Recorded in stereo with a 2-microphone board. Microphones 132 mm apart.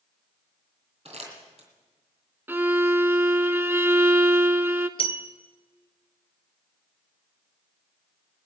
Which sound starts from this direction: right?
Crumpling, at 1.1 s.